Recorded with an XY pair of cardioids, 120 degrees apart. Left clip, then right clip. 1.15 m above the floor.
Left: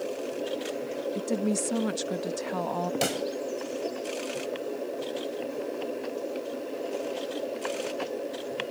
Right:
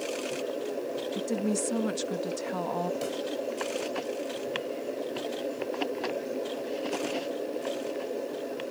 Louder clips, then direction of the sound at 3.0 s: Left 4 dB; 70° left.